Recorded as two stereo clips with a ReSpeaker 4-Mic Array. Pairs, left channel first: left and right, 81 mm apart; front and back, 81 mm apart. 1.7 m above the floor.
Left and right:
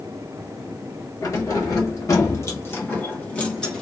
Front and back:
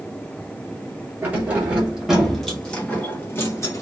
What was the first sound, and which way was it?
Keys jangling, 120° left.